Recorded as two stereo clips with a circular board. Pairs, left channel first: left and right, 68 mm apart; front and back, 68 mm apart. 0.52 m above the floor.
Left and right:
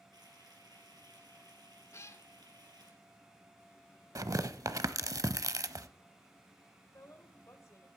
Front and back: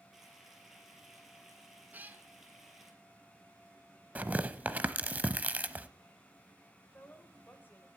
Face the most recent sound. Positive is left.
turn(degrees=55)